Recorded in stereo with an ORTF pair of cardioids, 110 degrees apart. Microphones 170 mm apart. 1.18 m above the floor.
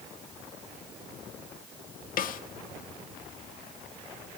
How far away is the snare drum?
About 1.8 m.